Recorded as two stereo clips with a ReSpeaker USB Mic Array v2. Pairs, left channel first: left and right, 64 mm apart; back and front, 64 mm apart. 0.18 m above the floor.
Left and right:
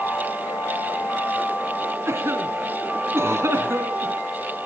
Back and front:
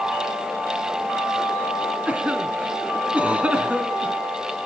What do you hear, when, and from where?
2.1 s a cough: 65° right, 2.5 m